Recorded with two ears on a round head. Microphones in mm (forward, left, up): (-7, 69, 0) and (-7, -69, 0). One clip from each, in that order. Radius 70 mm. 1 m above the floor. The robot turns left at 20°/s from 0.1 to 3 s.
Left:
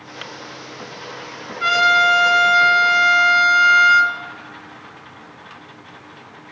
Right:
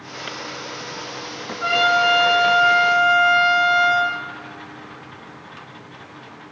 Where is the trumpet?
65° left (ahead or behind), 1.9 m; by 4.2 s 55° left (ahead or behind), 1.9 m.